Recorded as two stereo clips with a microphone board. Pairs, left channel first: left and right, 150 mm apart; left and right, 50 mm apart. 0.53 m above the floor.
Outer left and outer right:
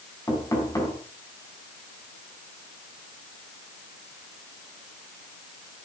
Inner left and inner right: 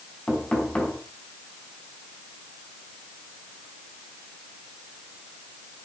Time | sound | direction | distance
0.3 | knocking | 20° left (ahead or behind) | 3.5 m